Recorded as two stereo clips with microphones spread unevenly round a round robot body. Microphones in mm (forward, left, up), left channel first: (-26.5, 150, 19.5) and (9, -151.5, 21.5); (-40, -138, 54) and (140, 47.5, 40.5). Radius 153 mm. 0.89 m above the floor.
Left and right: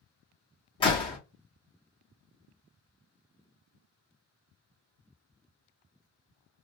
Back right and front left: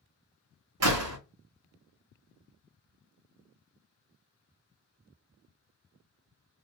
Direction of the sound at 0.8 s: 20° left.